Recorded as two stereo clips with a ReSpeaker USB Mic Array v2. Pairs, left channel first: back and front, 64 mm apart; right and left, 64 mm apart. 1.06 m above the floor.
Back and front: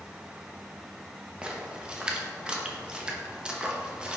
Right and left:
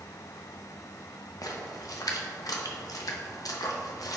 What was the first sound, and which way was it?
A splash, 75° right.